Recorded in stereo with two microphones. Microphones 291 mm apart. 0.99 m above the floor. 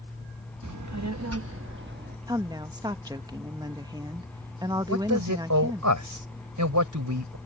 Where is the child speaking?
85° right; by 2.2 s 35° right (ahead or behind).